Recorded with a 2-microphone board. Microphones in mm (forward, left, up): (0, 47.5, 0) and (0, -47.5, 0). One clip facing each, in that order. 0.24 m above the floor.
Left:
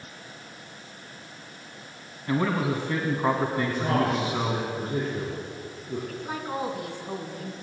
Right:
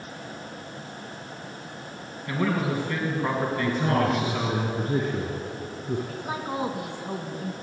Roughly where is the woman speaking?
Centre.